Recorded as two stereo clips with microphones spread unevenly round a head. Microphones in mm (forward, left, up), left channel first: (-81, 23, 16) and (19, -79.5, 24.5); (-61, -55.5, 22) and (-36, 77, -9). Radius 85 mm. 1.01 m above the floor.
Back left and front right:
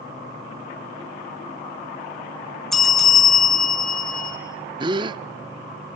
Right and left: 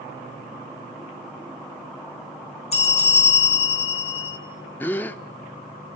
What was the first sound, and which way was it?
A bell, 135° right.